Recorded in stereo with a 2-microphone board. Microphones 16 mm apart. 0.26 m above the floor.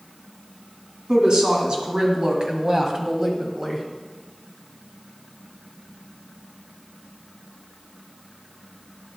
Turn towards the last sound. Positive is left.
turn(degrees=-15)  # may be behind; listen again after turning